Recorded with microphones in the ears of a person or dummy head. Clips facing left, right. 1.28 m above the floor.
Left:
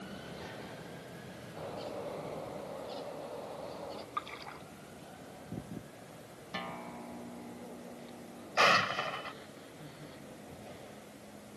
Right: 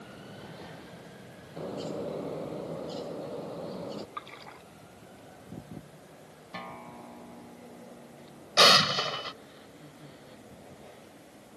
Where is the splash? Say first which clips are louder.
Left 1 dB; 5° left (ahead or behind).